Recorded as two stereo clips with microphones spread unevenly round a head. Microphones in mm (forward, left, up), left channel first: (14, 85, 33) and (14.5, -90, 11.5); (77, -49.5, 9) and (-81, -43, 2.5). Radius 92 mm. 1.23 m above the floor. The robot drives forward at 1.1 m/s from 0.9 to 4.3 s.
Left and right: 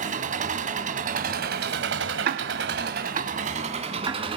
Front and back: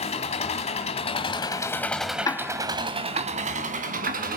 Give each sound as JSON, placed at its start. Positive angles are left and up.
{"t": 0.0, "sound": "an engine running", "azimuth_deg": -40, "distance_m": 2.0}
{"t": 2.2, "sound": "ticking", "azimuth_deg": -70, "distance_m": 0.8}